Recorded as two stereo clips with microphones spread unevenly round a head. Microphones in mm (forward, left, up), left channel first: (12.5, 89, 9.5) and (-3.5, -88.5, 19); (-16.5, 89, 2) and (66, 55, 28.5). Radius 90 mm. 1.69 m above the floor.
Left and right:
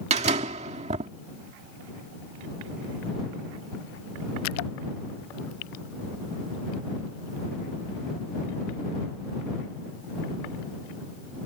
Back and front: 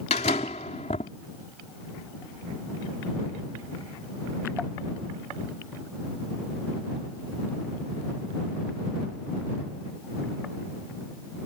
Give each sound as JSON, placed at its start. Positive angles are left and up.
{"t": 0.1, "sound": "a door slam", "azimuth_deg": -145}